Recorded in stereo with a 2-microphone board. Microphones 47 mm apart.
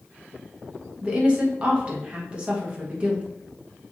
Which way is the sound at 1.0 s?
25° right (ahead or behind).